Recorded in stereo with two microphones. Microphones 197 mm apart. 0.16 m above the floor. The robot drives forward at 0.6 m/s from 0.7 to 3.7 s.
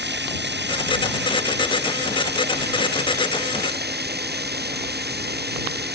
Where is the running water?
60° right (ahead or behind); by 6.0 s 55° right (ahead or behind).